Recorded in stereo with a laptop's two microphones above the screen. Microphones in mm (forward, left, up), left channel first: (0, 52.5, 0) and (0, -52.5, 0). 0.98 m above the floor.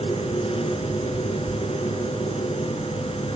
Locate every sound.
0.0 s a machine running: 65° left (ahead or behind), 3.5 m